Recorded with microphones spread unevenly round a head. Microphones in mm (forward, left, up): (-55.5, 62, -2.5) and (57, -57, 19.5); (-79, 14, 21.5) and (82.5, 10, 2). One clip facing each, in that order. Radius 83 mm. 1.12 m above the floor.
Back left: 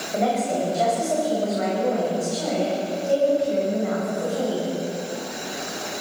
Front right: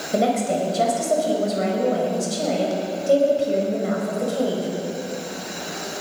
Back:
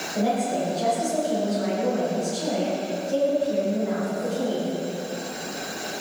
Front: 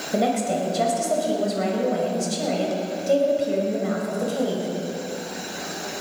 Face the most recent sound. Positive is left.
turn(degrees=0)